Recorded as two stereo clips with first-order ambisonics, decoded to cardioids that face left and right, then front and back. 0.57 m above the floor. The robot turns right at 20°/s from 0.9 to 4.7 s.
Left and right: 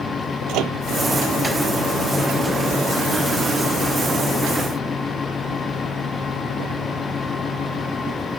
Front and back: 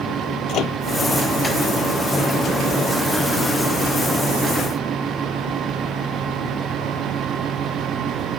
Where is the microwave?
50° right.